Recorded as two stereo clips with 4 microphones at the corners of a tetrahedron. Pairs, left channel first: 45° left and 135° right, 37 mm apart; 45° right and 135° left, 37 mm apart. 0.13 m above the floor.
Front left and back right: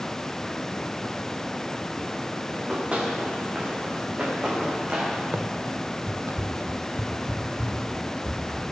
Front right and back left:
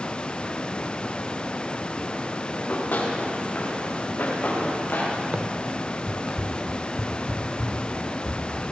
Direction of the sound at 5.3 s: 170° right.